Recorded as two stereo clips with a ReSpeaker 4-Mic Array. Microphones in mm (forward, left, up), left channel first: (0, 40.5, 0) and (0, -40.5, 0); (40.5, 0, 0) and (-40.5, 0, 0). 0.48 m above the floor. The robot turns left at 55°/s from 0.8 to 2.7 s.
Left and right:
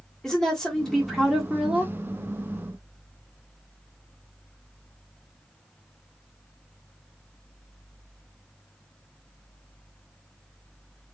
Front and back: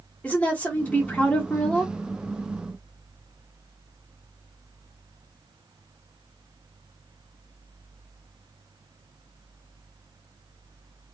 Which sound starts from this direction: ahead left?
A woman speaking, at 0.2 s.